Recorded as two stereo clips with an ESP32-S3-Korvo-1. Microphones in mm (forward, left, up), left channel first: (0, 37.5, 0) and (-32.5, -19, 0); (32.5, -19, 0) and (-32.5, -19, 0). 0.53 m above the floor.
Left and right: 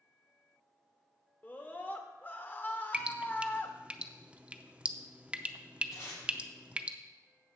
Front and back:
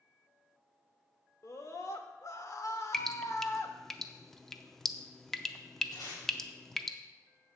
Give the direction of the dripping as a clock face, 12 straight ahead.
3 o'clock.